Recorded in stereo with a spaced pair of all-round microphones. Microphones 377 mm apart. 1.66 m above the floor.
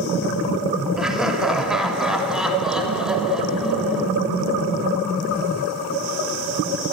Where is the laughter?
Centre (ahead or behind), 6 m.